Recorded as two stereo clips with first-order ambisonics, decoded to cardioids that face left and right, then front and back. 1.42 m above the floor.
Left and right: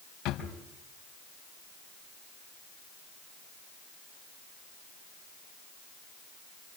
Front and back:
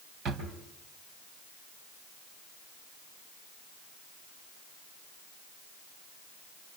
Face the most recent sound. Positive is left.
turn(degrees=130)